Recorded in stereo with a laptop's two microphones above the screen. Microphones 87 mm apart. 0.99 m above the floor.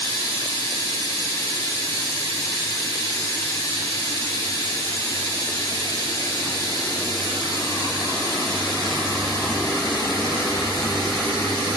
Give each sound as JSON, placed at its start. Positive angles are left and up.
{"t": 0.0, "sound": "running water", "side_deg": 55, "distance_m": 2.5}